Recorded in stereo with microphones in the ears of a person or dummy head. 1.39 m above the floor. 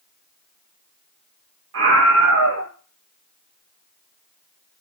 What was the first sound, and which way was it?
A scream, 75° right (ahead or behind).